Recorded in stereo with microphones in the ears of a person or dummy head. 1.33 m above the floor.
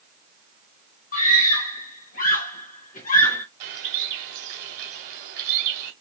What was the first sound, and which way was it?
A scream, 40° left (ahead or behind).